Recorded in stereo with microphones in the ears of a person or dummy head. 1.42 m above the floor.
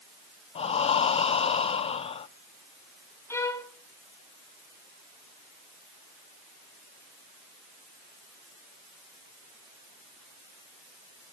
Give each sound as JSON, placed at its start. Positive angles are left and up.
{"t": 0.6, "sound": "breathing", "side_deg": 35, "distance_m": 0.5}
{"t": 3.3, "sound": "a violin", "side_deg": 20, "distance_m": 1.0}